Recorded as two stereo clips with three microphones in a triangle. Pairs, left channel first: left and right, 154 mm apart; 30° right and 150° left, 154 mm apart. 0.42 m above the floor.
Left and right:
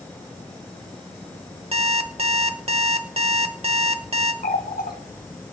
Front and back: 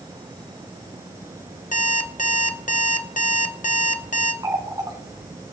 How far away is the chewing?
No chewing in this recording.